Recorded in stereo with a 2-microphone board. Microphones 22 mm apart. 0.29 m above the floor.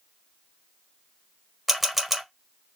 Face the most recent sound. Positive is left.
turn(degrees=0)  # may be behind; listen again after turning